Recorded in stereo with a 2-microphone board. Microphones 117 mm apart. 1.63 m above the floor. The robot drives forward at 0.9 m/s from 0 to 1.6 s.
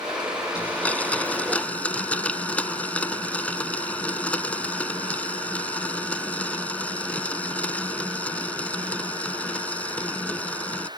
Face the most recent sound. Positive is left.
turn(degrees=10)  # may be behind; listen again after turning